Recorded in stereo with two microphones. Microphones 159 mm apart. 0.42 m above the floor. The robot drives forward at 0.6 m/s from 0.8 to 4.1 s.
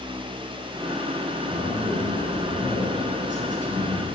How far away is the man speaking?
About 4 m.